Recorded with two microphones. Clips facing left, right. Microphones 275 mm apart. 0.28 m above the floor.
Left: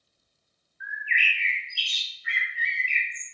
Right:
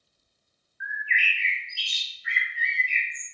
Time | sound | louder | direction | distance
0.8 | a bird | right 1 dB | 35° left (ahead or behind) | 2.5 m